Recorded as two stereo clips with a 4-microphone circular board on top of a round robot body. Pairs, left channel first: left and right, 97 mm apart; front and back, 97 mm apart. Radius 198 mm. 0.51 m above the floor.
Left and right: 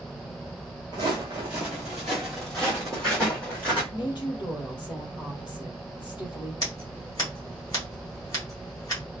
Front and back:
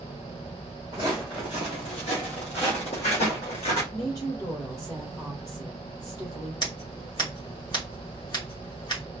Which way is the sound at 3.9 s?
50° left.